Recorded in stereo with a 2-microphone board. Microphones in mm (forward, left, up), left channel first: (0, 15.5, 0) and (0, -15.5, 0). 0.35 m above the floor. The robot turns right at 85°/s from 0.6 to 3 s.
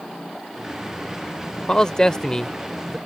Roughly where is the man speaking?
Left.